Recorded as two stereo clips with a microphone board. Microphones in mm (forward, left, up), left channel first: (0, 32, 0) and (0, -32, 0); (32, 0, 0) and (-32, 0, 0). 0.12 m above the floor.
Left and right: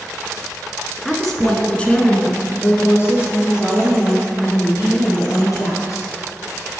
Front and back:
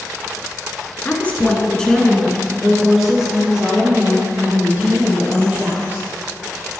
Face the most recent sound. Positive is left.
turn(degrees=115)